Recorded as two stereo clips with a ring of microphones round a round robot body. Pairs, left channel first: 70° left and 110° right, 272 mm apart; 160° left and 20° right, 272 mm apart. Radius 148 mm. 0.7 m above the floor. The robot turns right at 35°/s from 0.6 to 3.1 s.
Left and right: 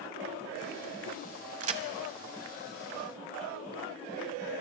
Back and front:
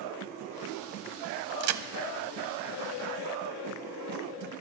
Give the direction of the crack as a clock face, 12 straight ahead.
2 o'clock.